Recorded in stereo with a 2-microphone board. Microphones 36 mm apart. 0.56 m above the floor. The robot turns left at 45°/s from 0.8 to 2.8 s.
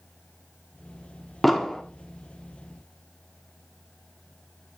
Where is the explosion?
Centre (ahead or behind), 1.2 m; by 1.8 s 10° left (ahead or behind), 1.2 m.